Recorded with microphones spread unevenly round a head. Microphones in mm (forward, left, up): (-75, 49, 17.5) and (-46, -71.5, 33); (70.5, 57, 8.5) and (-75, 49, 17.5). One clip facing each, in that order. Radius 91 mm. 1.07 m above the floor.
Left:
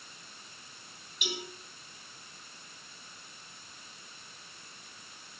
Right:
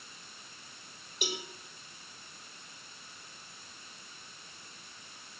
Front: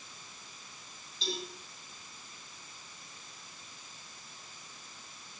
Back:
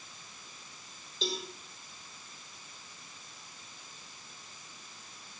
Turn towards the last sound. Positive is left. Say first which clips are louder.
# right 1 dB, back 2 dB
turn(degrees=-135)